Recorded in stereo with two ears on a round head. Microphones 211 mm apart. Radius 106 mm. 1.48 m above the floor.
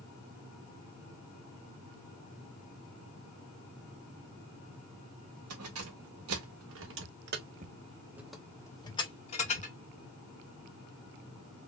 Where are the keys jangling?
70° right (ahead or behind), 1.7 m; by 9.8 s 35° left (ahead or behind), 1.4 m.